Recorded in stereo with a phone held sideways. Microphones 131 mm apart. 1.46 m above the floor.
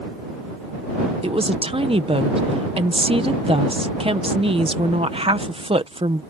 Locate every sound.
1.2 s a woman speaking: 45° right (ahead or behind)